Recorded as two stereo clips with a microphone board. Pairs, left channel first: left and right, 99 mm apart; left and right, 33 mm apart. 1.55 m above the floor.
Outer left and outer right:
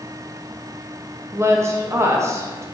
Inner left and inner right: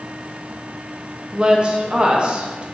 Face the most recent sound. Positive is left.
turn(degrees=-30)  # may be behind; listen again after turning